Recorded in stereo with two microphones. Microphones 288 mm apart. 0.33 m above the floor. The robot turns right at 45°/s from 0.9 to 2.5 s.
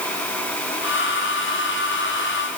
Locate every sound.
Only background noise.